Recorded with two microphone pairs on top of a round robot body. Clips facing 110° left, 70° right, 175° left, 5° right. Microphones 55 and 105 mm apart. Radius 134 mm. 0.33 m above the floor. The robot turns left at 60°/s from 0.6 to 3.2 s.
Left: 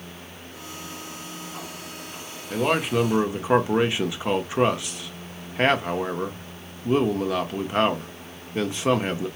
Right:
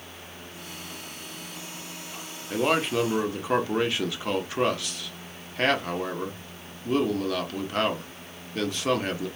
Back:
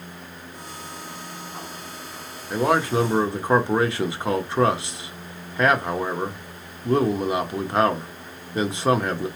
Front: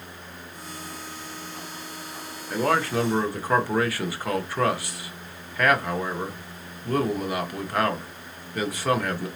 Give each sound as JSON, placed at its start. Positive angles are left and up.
{"t": 2.5, "sound": "a man speaking", "azimuth_deg": -130, "distance_m": 0.9}